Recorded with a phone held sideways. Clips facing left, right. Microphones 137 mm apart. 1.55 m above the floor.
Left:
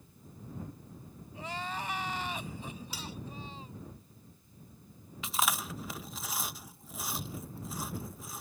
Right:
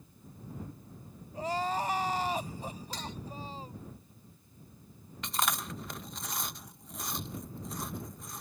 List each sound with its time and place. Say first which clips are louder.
1.3 s crying: right 7 dB; 40° right (ahead or behind)
2.9 s cutlery clinking: right 2 dB; 10° left (ahead or behind)
5.2 s chewing: even; 5° left (ahead or behind)